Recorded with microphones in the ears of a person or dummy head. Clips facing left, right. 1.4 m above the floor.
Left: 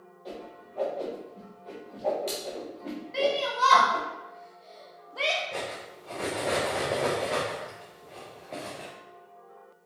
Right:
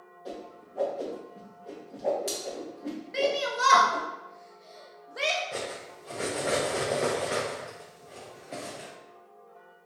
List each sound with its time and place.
0.2 s a whoosh: 10° right (ahead or behind), 0.9 m
3.1 s a shout: 20° right (ahead or behind), 0.6 m
5.5 s cutlery clinking: 10° right (ahead or behind), 0.6 m